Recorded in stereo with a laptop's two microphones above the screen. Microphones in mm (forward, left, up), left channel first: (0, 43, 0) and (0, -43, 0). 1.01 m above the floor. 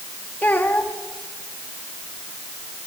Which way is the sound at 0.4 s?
25° left (ahead or behind).